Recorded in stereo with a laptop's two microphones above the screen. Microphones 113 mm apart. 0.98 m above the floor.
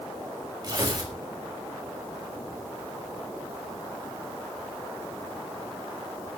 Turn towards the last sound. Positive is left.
turn(degrees=-40)  # may be behind; listen again after turning